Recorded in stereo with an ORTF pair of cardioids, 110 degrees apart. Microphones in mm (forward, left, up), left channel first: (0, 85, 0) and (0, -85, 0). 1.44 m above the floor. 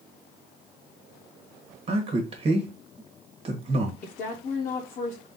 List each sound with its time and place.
1.9 s a man speaking: 35° right, 1.3 m
4.0 s a woman speaking: 45° left, 0.8 m